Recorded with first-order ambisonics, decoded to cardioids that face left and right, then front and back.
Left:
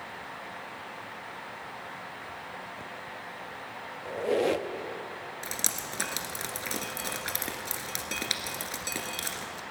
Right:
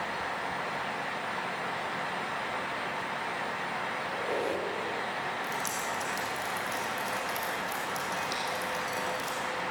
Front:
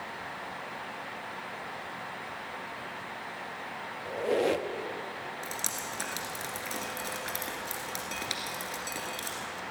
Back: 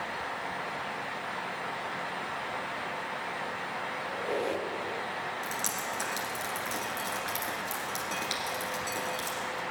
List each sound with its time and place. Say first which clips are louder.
4.0 s a squeak: left 8 dB, front 6 dB; 50° left, 0.6 m
5.4 s dripping: right 2 dB, back 3 dB; 85° left, 1.7 m